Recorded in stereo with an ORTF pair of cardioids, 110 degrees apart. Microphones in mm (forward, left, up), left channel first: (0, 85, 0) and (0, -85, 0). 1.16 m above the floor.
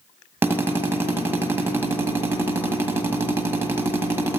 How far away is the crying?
No crying in this recording.